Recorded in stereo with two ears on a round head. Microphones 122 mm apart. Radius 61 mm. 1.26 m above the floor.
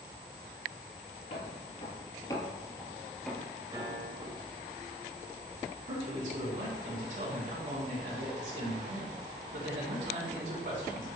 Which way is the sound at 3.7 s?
30° right (ahead or behind).